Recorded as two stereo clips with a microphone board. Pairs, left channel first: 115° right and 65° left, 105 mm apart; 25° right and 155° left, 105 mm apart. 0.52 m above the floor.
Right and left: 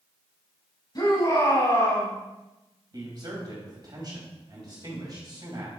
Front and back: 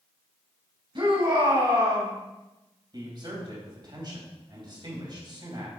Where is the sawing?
I don't hear sawing.